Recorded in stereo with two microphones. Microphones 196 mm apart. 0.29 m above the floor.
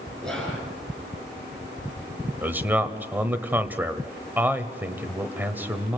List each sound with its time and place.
0.2 s whispering: 5° left (ahead or behind), 5 m
2.4 s a man speaking: 10° right (ahead or behind), 1.2 m